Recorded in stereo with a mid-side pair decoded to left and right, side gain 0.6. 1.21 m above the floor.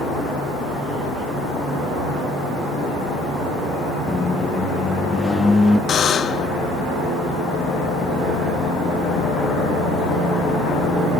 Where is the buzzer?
45° left, 0.7 m.